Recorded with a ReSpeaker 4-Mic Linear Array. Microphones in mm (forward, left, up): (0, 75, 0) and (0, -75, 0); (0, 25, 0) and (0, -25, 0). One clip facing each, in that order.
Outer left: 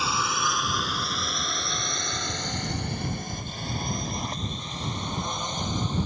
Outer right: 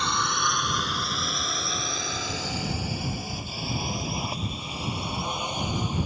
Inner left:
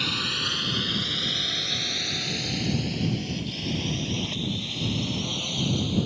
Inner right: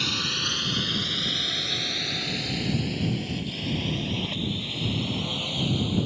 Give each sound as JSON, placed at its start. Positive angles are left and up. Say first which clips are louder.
{"t": 0.0, "sound": "a drone", "louder": "even, even", "side_deg": 5}